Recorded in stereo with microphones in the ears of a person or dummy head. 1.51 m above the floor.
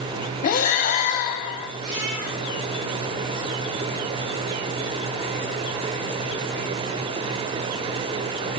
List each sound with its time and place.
0.4 s breathing: 55° left (ahead or behind), 0.7 m
1.8 s a cat meowing: 60° right (ahead or behind), 3.5 m